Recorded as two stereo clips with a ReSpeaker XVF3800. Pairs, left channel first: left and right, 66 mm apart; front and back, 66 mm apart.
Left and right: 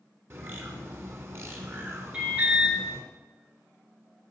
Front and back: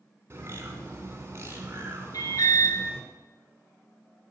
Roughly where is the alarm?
Ahead.